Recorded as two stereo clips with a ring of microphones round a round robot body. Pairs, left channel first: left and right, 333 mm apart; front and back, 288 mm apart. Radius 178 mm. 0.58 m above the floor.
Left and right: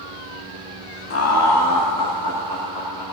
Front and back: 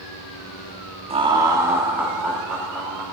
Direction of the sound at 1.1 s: 120° left.